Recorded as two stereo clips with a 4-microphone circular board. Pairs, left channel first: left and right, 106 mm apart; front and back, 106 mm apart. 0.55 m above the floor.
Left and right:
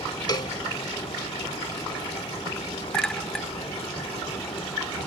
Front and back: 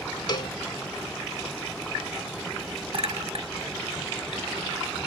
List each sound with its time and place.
0.3 s a cowbell: 45° left
2.9 s a clink: 175° left